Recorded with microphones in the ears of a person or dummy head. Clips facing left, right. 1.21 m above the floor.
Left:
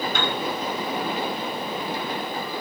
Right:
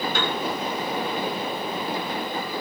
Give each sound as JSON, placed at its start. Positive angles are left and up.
{"t": 0.1, "sound": "a piano", "side_deg": -40, "distance_m": 3.5}